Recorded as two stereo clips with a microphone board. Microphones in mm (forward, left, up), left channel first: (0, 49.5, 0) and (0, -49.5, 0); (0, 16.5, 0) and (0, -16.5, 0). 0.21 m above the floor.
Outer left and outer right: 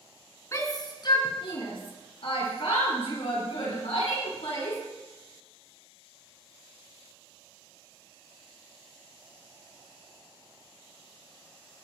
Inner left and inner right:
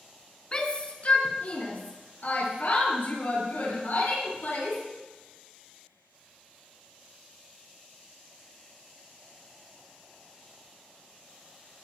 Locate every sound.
0.5 s a shout: 30° left (ahead or behind), 2.5 m; by 4.8 s 75° left (ahead or behind), 8 m